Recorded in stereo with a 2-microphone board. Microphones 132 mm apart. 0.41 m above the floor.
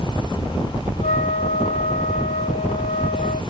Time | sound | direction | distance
1.0 | a flute | 70° left (ahead or behind) | ?